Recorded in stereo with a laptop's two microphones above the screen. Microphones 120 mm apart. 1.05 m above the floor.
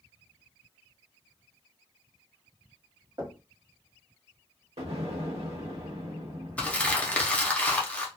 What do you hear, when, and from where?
3.2 s knocking: 40° right (ahead or behind), 1.1 m
4.8 s an explosion: 75° right (ahead or behind), 0.9 m
6.6 s crumpling: 15° left (ahead or behind), 0.5 m